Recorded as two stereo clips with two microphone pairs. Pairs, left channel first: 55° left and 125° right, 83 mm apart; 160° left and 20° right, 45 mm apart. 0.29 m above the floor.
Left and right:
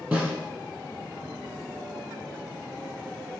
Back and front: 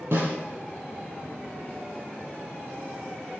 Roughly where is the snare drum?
Ahead right.